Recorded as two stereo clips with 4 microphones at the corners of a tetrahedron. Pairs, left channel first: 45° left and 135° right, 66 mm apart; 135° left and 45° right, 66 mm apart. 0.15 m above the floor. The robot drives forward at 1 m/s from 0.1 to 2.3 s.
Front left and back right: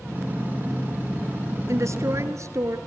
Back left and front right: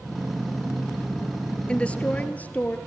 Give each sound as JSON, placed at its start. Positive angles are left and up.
{"t": 1.7, "sound": "a woman speaking", "azimuth_deg": -155, "distance_m": 1.7}